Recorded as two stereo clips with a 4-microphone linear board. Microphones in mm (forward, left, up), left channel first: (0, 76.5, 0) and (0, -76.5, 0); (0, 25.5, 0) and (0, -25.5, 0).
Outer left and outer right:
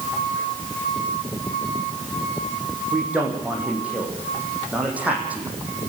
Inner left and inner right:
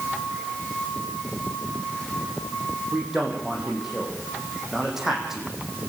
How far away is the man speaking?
About 7 m.